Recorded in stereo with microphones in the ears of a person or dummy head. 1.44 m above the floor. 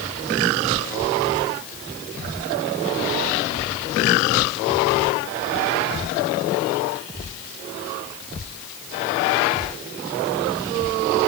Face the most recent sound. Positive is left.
No sound to turn to.